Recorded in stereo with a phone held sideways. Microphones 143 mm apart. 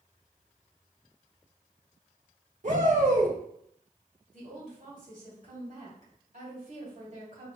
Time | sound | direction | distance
2.6 | a shout | 60° right (ahead or behind) | 1.4 m
4.3 | a woman speaking | 65° right (ahead or behind) | 3 m